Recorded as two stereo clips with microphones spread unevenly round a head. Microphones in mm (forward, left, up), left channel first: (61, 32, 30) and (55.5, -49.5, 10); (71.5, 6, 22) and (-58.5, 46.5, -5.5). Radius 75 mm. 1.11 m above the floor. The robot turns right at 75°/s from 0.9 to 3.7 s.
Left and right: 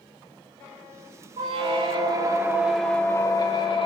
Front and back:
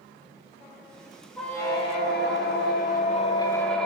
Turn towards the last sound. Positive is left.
turn(degrees=65)